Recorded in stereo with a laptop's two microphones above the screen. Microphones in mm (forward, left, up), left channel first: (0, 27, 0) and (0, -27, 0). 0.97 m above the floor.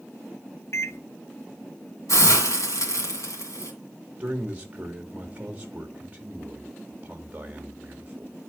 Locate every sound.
0.7 s a microwave: 60° left (ahead or behind), 0.7 m
2.1 s a hiss: 75° left (ahead or behind), 2.5 m
4.2 s a man speaking: 25° right (ahead or behind), 1.3 m